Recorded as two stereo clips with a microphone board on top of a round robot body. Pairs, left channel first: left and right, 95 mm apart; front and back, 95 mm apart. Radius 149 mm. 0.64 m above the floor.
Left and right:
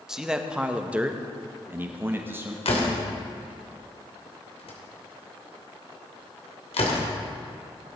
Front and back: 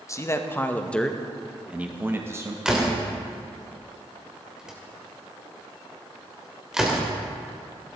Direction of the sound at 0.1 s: 10° right.